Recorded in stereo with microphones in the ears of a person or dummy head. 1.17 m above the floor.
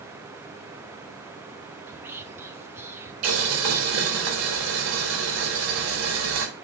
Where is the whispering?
15° right (ahead or behind), 0.8 m.